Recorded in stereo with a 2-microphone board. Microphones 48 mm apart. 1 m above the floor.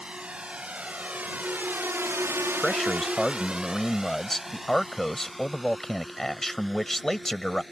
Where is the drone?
25° right (ahead or behind); by 7.7 s 5° left (ahead or behind).